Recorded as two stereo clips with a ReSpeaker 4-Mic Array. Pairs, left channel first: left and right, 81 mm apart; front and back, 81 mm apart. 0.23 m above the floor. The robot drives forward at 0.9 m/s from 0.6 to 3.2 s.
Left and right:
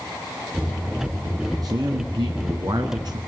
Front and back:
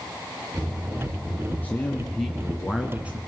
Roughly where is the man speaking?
Ahead right.